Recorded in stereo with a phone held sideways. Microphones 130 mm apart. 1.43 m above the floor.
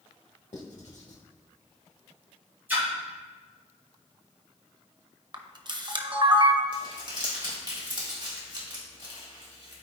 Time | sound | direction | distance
0.5 | writing | 70° left (ahead or behind) | 1.7 m
2.7 | a splash | 15° right (ahead or behind) | 2.5 m
5.3 | a camera shutter | 40° right (ahead or behind) | 0.7 m
6.7 | crumpling | 40° right (ahead or behind) | 2.5 m